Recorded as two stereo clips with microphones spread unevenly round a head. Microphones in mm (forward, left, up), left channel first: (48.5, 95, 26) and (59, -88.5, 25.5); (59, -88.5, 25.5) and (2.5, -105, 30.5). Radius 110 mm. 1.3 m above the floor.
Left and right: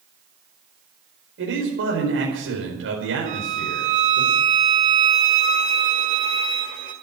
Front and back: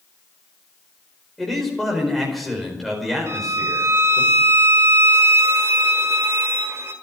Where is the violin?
145° right, 1.7 m.